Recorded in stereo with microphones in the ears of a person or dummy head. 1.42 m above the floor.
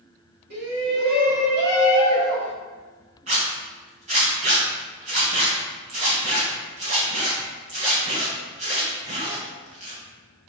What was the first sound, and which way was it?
A shout, 90° right.